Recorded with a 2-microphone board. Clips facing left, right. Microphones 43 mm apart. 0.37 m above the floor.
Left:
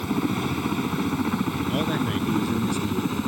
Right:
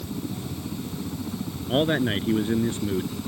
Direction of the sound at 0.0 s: 65° left (ahead or behind).